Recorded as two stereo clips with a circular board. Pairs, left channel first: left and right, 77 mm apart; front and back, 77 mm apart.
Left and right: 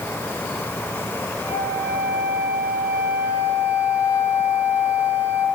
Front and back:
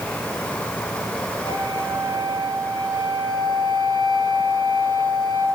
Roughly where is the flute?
Ahead right.